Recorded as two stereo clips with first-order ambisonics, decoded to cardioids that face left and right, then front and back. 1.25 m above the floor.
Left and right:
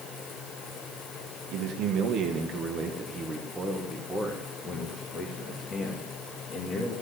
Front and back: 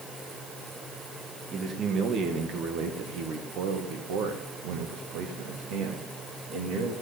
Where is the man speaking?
120° right, 1.3 m; by 6.9 s 150° left, 2.5 m.